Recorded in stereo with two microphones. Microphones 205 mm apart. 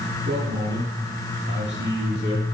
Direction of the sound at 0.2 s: 55° right (ahead or behind).